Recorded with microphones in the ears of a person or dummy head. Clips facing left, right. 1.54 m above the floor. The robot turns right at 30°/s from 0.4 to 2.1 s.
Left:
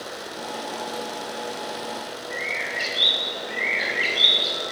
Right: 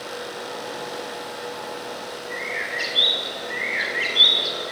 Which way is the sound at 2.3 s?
15° right (ahead or behind).